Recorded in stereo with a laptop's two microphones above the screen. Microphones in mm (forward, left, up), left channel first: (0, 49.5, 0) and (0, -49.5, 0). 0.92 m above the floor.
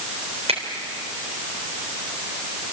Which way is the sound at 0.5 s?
80° right.